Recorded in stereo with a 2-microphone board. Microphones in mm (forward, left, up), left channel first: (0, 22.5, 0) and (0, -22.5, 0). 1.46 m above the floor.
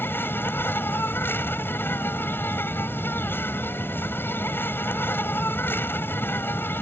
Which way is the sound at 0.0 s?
55° left (ahead or behind).